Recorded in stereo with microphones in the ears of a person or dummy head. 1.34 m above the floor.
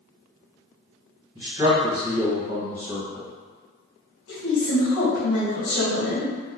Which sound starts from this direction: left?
A woman speaking, at 4.3 s.